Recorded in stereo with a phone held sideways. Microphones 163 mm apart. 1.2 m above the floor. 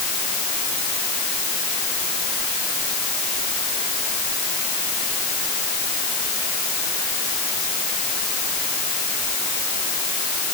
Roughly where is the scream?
I don't hear a scream.